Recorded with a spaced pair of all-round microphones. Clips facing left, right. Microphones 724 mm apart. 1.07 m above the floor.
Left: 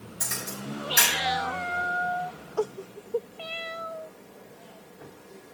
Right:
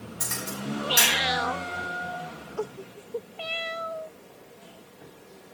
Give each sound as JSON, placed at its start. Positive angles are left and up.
{"t": 0.2, "sound": "a camera shutter", "side_deg": -20, "distance_m": 5.0}